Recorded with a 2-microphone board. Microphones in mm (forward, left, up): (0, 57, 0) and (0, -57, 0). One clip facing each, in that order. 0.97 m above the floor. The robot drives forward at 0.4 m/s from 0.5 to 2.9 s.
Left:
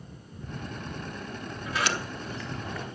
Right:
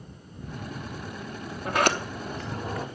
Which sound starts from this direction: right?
A sliding door, at 1.6 s.